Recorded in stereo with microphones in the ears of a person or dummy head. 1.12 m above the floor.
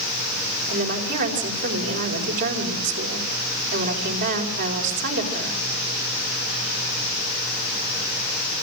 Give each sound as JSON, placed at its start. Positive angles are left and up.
{"t": 0.7, "sound": "a woman speaking", "side_deg": -70, "distance_m": 4.5}